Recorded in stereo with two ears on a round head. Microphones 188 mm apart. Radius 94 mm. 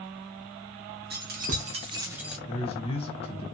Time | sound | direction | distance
1.1 | keys jangling | 50° right (ahead or behind) | 0.9 m
2.5 | a man speaking | 30° left (ahead or behind) | 1.2 m